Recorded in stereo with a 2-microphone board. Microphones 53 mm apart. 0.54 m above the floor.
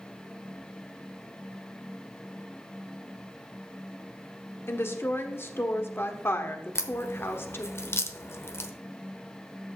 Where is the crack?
55° left (ahead or behind), 0.9 m.